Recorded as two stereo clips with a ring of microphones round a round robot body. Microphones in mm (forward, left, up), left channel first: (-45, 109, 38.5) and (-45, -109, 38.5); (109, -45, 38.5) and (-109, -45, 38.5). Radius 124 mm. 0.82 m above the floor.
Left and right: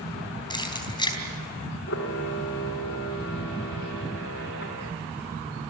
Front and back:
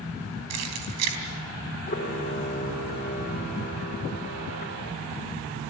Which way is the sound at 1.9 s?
60° left.